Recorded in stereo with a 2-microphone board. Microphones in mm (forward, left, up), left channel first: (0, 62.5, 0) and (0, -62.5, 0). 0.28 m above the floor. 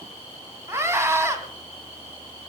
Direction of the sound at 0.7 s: 20° right (ahead or behind).